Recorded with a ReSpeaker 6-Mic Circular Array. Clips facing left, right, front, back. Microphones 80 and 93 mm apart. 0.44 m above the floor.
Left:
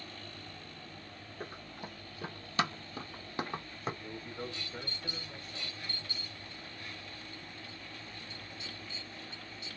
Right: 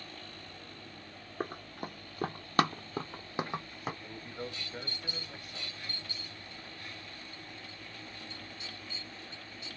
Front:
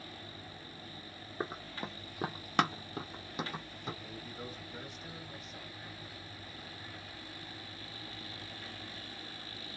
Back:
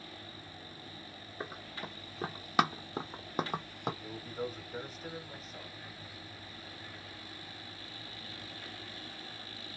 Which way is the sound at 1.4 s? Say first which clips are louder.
Right 7 dB, front 3 dB; 55° right.